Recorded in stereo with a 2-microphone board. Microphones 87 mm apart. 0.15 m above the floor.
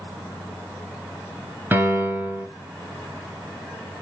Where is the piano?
25° right (ahead or behind), 0.9 m.